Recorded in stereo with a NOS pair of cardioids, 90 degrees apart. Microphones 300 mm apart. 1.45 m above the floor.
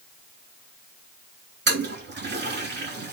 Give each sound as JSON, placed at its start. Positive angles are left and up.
{"t": 1.7, "sound": "a toilet flushing", "azimuth_deg": -35, "distance_m": 2.5}